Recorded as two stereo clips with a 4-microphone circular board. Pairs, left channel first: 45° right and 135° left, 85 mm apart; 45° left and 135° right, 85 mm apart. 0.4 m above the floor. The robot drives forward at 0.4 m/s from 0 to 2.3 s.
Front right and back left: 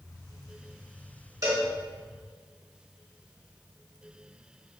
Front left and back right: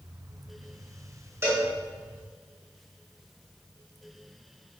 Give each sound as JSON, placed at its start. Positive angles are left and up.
{"t": 1.4, "sound": "a cowbell", "azimuth_deg": 175, "distance_m": 1.4}